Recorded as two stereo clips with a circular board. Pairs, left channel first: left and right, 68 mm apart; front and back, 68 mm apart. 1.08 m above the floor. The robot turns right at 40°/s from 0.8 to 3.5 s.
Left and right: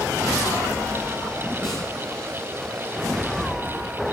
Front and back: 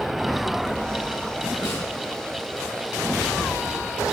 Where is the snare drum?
Straight ahead, 3.5 m; by 1.8 s 10° left, 3.5 m.